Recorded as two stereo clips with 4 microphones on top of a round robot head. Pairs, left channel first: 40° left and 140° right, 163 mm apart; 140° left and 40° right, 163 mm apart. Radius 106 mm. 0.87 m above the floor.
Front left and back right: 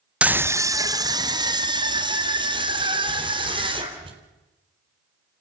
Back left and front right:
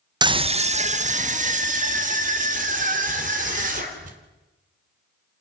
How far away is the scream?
About 0.6 m.